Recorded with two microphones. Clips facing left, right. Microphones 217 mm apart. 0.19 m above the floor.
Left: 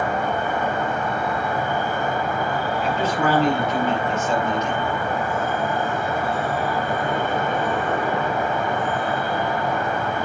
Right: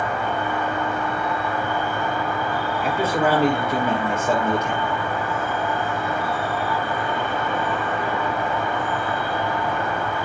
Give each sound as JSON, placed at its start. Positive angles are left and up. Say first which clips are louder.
{"t": 0.0, "sound": "an insect", "louder": "left 2 dB", "side_deg": 50, "distance_m": 2.5}
{"t": 2.8, "sound": "a man speaking", "louder": "right 2 dB", "side_deg": -55, "distance_m": 4.5}